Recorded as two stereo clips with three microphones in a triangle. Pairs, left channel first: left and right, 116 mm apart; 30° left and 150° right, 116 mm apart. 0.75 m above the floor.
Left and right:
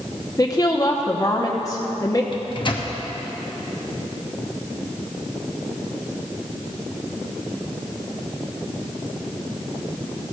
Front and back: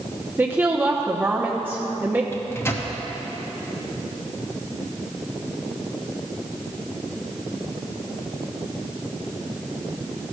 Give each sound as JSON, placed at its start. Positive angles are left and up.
{"t": 0.4, "sound": "a woman speaking", "azimuth_deg": 140, "distance_m": 0.9}
{"t": 2.3, "sound": "a microwave", "azimuth_deg": 85, "distance_m": 0.9}